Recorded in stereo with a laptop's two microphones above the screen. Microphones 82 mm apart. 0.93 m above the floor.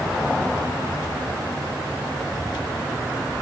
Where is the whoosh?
No whoosh in this recording.